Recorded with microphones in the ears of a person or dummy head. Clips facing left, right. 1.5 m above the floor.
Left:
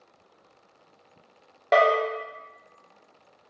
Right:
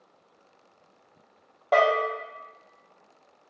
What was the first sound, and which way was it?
A bell, 30° left (ahead or behind).